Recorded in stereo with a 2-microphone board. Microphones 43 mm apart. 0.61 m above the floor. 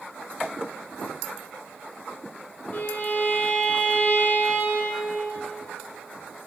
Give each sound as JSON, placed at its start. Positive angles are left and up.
{"t": 2.7, "sound": "a violin", "side_deg": 40, "distance_m": 1.4}